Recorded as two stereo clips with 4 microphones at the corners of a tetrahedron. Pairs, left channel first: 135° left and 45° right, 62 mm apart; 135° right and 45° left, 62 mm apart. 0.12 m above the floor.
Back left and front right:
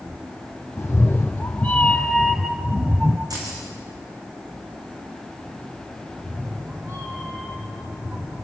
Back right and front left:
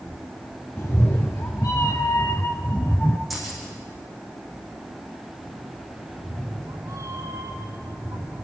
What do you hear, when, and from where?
0.8 s a cat meowing: 175° right, 2 m; by 3.2 s 70° right, 1.2 m
3.3 s keys jangling: 45° right, 6 m
6.1 s a cat meowing: 10° left, 6.5 m